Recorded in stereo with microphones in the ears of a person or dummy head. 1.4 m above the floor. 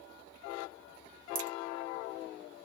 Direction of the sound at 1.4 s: 55° right (ahead or behind).